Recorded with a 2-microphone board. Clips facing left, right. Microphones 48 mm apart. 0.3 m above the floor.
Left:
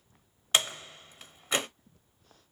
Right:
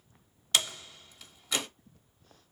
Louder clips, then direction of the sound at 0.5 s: Left 2 dB; 30° left (ahead or behind).